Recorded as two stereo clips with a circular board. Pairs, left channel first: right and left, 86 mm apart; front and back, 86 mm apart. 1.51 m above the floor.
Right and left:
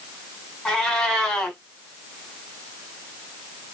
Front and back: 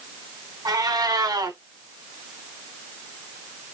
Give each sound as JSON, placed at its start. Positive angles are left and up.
{"t": 0.7, "sound": "a cat meowing", "azimuth_deg": -170, "distance_m": 1.7}